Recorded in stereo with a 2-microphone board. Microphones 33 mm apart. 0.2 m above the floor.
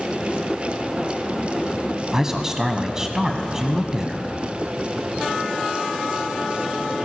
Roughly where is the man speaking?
Centre.